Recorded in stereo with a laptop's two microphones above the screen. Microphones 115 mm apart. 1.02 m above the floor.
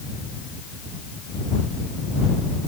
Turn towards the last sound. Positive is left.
No sound to turn to.